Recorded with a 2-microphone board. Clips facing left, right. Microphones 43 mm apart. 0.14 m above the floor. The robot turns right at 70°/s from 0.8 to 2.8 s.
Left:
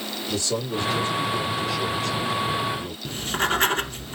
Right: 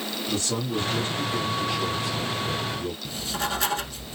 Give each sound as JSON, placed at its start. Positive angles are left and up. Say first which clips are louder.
{"t": 0.3, "sound": "a man speaking", "louder": "left 2 dB", "azimuth_deg": -110, "distance_m": 2.0}
{"t": 3.0, "sound": "writing", "louder": "left 8 dB", "side_deg": 45, "distance_m": 0.5}